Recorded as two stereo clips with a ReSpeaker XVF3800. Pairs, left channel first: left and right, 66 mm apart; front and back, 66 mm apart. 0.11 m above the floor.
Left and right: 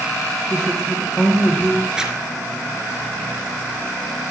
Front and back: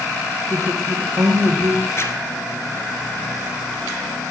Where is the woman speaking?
170° left, 2.5 m.